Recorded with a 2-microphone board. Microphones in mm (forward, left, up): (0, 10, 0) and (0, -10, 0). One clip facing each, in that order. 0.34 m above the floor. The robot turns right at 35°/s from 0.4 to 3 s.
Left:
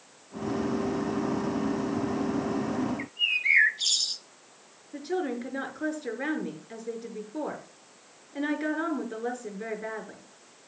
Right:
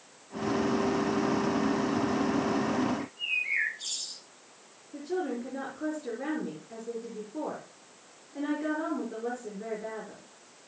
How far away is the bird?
About 0.8 m.